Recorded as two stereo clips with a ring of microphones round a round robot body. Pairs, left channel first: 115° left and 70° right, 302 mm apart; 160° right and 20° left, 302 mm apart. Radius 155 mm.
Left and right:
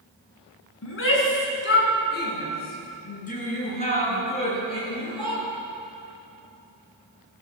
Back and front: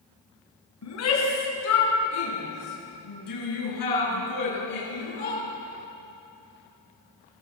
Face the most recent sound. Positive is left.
turn(degrees=-170)